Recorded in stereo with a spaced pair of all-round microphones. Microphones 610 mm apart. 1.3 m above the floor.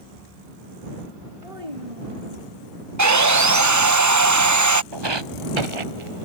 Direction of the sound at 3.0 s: 30° right (ahead or behind).